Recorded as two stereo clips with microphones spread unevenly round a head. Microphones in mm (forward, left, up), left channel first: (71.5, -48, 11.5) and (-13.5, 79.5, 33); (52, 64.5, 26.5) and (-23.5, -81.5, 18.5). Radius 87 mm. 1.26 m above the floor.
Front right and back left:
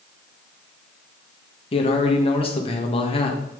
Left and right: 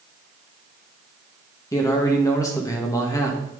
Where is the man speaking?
10° right, 1.8 m.